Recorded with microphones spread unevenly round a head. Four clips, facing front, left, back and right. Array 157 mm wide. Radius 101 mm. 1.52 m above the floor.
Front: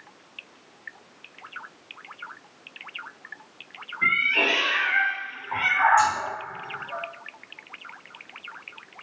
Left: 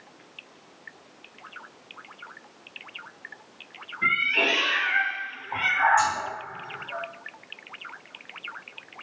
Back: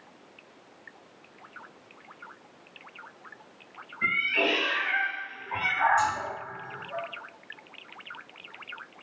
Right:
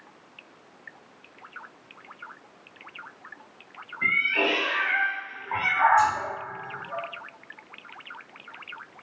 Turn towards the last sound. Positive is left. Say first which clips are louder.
# right 3 dB, front 5 dB
turn(degrees=-25)